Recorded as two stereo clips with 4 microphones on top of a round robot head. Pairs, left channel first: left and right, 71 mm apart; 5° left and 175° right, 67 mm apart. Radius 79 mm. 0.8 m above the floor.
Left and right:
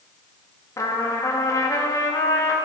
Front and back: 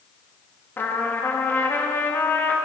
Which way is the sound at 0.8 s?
60° left.